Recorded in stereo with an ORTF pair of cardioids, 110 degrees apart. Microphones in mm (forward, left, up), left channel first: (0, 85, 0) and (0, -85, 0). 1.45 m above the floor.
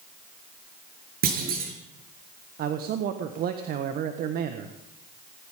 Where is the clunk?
60° right, 6 m.